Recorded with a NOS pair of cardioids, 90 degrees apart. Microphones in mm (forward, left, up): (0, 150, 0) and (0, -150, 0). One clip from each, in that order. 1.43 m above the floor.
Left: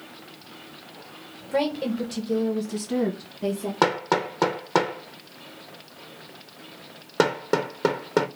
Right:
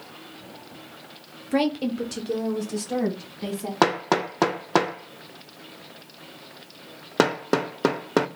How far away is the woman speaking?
About 0.7 m.